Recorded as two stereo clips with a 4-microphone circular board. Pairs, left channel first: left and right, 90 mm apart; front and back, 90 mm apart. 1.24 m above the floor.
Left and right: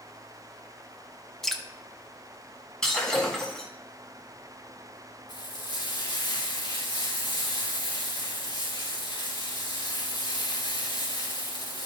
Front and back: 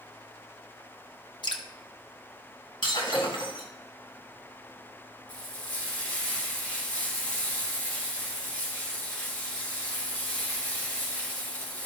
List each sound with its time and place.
1.4 s dripping: 5° left, 0.9 m
2.8 s breaking glass: 10° left, 3 m
5.3 s frying: 70° left, 3 m